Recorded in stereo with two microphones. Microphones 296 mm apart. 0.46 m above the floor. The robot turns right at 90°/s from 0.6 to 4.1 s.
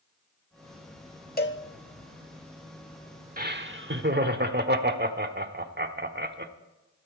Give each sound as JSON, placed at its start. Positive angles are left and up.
{"t": 1.4, "sound": "a cowbell", "side_deg": 30, "distance_m": 0.7}
{"t": 3.4, "sound": "laughter", "azimuth_deg": -130, "distance_m": 1.1}